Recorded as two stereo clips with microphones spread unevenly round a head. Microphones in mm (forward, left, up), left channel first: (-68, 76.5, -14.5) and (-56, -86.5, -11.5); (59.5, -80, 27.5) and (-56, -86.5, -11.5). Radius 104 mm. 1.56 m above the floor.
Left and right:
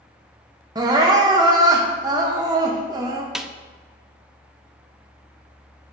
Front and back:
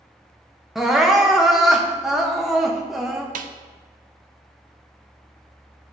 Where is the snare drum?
170° right, 0.5 m.